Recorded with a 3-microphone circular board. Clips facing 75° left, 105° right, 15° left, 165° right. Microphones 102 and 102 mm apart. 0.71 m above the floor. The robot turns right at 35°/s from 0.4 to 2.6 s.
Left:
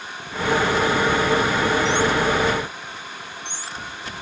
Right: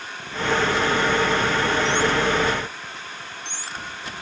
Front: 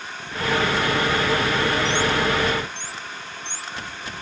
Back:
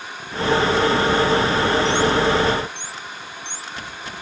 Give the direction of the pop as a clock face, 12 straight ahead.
I don't hear a pop.